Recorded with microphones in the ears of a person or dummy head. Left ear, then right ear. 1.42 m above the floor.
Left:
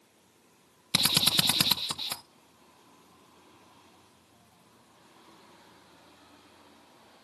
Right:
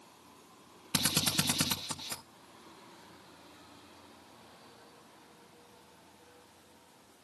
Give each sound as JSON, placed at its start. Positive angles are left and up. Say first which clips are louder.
{"t": 0.9, "sound": "a drill", "louder": "left 7 dB", "side_deg": 40, "distance_m": 0.8}